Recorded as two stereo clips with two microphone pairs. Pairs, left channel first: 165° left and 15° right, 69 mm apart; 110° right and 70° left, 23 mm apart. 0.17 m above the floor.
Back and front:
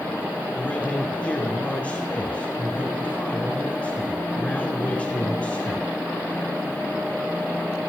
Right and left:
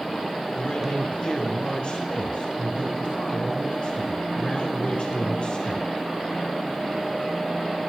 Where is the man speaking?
130° right, 3 m.